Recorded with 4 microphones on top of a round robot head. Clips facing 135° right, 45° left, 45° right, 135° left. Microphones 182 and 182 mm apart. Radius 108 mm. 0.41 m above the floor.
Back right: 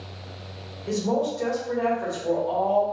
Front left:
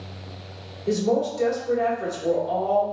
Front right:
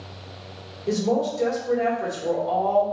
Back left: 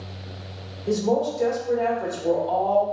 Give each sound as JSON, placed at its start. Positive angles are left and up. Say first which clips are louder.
{"t": 0.9, "sound": "a woman speaking", "louder": "front left 3 dB, back left 1 dB", "azimuth_deg": 25, "distance_m": 1.7}